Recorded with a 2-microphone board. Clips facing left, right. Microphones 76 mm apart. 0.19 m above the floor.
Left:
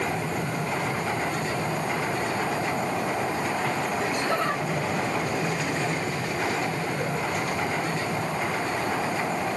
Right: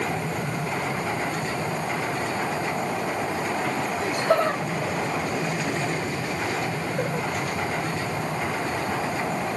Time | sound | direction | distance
4.0 | laughter | 45° right (ahead or behind) | 7 m